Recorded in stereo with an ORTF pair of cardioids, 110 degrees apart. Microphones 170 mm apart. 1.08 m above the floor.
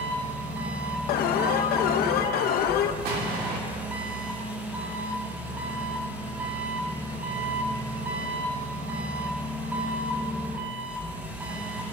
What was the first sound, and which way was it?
An engine running, 10° right.